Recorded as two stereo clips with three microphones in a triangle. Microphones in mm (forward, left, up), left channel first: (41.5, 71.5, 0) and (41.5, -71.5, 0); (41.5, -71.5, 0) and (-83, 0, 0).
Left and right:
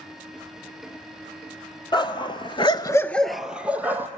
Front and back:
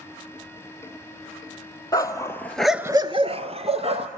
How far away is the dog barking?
About 1.4 m.